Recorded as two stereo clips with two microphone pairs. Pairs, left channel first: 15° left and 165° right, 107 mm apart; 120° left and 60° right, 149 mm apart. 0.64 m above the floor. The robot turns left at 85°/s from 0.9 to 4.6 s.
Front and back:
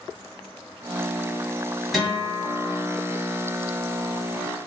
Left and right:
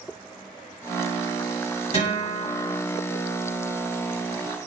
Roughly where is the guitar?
Left.